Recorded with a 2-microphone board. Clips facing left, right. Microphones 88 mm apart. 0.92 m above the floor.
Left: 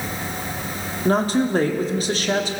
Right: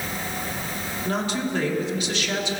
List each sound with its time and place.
1.1 s a woman speaking: 40° left (ahead or behind), 1.5 m